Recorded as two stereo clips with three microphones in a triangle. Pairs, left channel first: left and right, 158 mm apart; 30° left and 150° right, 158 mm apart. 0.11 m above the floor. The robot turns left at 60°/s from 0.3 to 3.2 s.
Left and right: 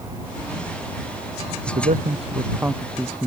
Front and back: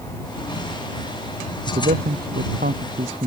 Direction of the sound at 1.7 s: 105° right.